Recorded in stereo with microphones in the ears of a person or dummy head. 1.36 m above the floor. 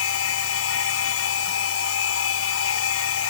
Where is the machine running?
85° left.